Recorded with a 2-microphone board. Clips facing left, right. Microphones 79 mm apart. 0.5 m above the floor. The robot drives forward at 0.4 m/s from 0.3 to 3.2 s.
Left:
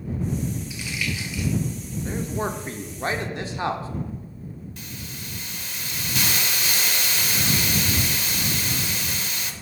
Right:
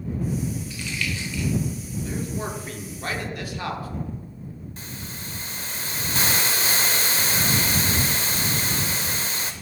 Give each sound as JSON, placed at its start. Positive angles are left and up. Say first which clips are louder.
{"t": 0.7, "sound": "crumpling", "louder": "even", "side_deg": 10, "distance_m": 1.7}
{"t": 2.0, "sound": "a man speaking", "louder": "left 3 dB", "side_deg": 30, "distance_m": 0.7}
{"t": 4.8, "sound": "a hiss", "louder": "right 1 dB", "side_deg": -35, "distance_m": 0.7}